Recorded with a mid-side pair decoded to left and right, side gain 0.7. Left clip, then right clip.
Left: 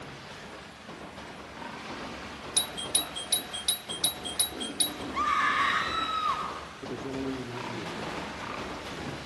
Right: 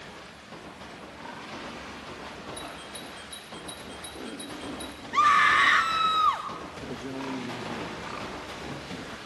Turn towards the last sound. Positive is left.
turn(degrees=-20)